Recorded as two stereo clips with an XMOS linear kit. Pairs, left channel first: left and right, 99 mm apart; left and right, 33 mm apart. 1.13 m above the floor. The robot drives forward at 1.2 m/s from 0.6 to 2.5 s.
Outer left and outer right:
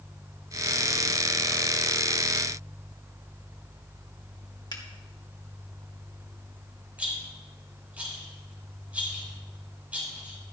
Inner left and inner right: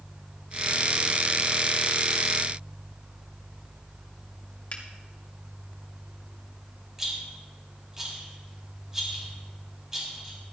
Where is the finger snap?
40° left (ahead or behind), 2.5 m.